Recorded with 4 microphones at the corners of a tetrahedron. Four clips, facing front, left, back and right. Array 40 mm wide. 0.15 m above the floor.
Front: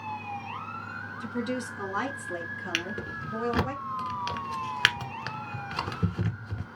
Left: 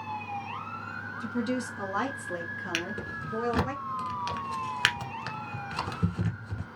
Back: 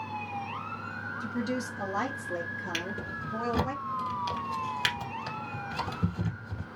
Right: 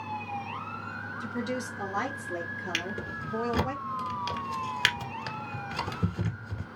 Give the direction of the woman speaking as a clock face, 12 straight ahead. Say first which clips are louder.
Left 3 dB, front 1 dB; 11 o'clock.